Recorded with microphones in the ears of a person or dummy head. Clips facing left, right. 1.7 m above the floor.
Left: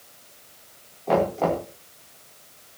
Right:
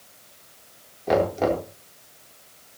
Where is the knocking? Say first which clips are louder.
Right 1 dB; 20° right (ahead or behind), 4 m.